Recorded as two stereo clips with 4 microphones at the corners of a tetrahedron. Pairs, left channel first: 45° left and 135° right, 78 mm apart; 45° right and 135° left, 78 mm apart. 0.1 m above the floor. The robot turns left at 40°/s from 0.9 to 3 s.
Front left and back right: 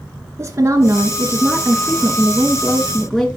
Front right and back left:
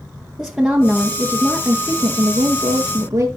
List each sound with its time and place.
0.4 s a woman speaking: 145° right, 1.3 m; by 3.3 s 130° left, 1.3 m